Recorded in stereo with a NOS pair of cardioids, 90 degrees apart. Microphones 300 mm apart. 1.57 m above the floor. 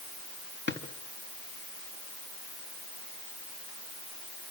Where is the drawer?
35° left, 4.5 m.